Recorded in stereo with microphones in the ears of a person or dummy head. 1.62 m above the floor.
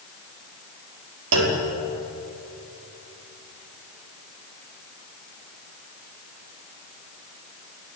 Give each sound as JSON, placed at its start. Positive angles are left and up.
{"t": 1.3, "sound": "a clunk", "side_deg": -70, "distance_m": 5.0}